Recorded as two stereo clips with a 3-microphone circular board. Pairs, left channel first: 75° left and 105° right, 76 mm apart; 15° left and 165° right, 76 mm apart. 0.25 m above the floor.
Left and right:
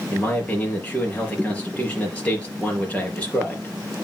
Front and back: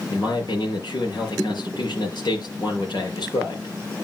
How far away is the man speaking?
About 4 m.